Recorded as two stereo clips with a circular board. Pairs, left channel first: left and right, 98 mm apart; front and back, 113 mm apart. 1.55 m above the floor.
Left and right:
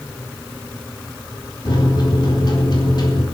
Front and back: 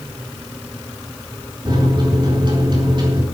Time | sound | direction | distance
1.6 | a microwave | 135° left | 4 m